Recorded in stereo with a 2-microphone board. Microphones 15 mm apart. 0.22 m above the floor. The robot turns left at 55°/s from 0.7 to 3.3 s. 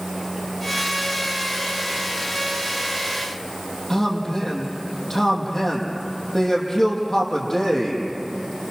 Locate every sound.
3.9 s a man speaking: 25° left (ahead or behind), 6.5 m